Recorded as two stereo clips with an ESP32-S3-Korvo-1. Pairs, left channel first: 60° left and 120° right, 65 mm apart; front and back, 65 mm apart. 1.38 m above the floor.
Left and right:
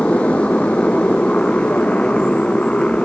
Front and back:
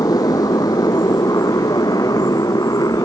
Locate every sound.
0.0 s a motorcycle: 10° right